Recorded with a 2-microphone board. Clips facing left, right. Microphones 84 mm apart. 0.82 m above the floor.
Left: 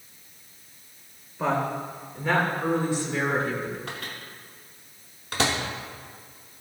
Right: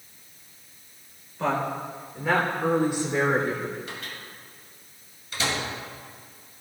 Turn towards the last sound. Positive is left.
turn(degrees=75)  # may be behind; listen again after turning